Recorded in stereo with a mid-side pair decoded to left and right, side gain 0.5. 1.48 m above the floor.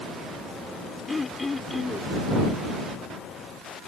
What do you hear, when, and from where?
1.1 s throat clearing: 25° left